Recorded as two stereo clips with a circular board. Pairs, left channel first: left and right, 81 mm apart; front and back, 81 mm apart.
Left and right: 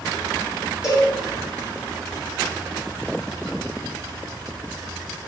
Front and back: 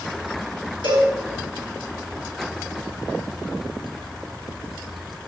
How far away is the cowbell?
About 1.5 m.